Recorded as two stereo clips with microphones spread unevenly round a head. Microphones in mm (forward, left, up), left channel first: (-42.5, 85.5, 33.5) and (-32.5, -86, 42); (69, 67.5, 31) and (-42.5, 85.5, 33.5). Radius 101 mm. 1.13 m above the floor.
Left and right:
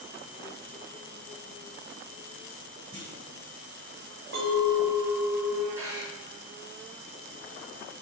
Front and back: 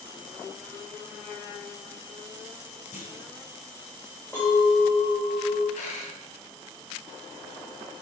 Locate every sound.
2.9 s a clunk: 20° right, 4 m
4.3 s a clink: 90° right, 3 m
5.8 s a dropped coin: 10° right, 2 m